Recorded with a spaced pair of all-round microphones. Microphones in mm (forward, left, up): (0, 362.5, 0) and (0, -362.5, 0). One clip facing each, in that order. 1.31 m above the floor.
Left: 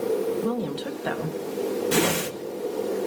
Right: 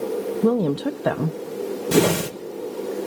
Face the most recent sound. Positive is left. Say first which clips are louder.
# right 10 dB
turn(degrees=-75)  # may be behind; listen again after turning